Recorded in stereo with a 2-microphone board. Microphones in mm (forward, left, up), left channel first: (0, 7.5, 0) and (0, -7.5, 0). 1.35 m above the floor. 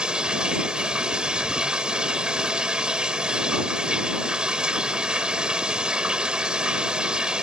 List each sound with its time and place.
0.0 s running water: 75° right (ahead or behind)